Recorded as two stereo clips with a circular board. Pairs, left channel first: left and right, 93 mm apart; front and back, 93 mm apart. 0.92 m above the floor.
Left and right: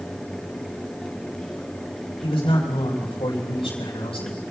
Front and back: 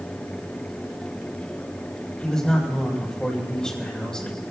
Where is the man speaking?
85° left, 6 m.